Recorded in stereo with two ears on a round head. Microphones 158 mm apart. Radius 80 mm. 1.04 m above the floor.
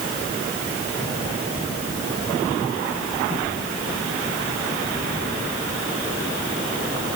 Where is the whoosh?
I don't hear a whoosh.